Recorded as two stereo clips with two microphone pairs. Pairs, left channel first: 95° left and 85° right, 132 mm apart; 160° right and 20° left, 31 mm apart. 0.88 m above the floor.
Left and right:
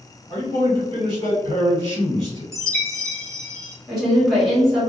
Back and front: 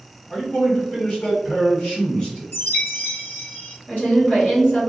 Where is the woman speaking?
170° right, 1.7 m.